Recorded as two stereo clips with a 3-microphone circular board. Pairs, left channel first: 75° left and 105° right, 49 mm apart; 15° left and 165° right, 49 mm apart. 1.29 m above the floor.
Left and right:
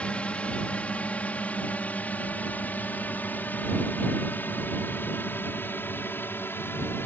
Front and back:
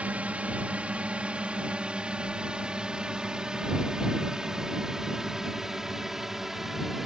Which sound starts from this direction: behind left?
A drone, at 0.0 s.